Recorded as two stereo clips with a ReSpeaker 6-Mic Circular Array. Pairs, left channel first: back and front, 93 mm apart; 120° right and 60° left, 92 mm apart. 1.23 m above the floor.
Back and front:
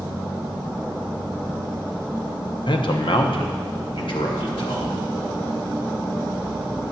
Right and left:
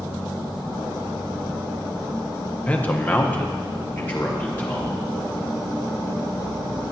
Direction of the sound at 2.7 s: 165° left.